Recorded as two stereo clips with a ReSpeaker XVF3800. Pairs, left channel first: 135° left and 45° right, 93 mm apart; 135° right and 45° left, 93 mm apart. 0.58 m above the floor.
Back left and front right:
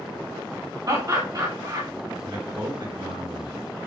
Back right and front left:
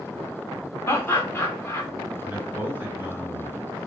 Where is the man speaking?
25° right, 2.5 m.